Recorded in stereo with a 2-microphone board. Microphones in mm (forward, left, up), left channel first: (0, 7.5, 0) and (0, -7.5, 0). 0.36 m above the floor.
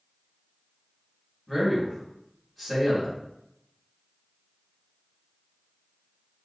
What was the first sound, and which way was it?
A man speaking, 10° left (ahead or behind).